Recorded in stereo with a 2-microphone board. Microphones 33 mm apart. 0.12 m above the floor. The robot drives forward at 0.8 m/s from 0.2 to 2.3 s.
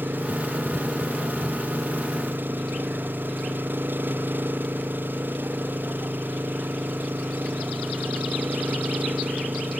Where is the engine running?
80° right; by 9.8 s 75° right (ahead or behind).